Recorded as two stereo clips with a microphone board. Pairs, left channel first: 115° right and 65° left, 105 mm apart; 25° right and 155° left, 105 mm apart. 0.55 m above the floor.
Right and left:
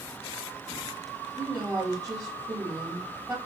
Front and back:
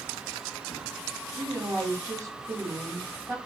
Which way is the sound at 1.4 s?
110° left.